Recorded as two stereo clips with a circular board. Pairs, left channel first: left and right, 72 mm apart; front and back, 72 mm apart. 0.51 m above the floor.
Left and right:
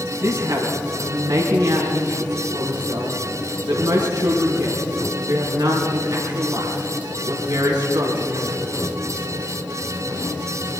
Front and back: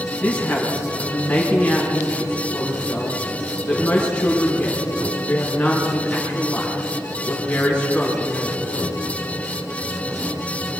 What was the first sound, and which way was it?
A woman speaking, 70° right.